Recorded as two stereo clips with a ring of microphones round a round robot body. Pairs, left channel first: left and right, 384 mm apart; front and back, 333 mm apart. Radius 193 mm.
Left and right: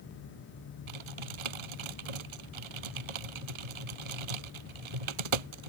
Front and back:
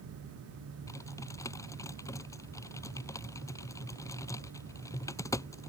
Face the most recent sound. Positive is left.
turn(degrees=-85)